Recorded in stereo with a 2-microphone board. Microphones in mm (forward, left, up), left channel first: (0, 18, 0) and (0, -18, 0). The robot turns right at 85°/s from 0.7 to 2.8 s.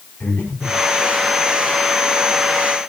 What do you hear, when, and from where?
0.2 s breathing: 75° left (ahead or behind), 5 m; by 0.8 s 85° left, 5 m